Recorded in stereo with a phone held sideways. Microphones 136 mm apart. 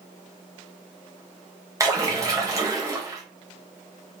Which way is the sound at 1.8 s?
25° right (ahead or behind).